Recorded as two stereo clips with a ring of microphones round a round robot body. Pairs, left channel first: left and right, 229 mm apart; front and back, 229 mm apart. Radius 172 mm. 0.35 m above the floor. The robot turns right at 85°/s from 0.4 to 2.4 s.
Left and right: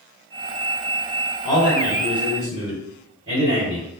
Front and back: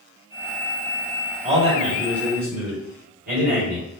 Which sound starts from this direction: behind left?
A man speaking, at 1.4 s.